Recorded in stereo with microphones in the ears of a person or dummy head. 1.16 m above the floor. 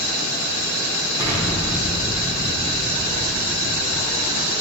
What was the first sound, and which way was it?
An explosion, 15° right (ahead or behind).